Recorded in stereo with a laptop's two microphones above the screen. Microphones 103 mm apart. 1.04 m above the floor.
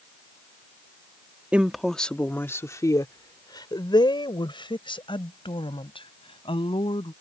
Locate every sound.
1.5 s a woman speaking: 15° right (ahead or behind); by 7.1 s 65° left (ahead or behind)